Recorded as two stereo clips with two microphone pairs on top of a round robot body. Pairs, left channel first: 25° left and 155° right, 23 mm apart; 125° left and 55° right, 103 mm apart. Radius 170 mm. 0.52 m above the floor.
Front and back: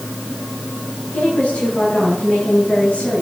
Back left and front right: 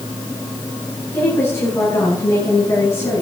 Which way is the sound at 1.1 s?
55° left.